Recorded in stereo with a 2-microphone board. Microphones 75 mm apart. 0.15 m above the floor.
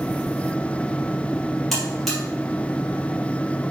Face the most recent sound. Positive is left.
turn(degrees=0)  # may be behind; listen again after turning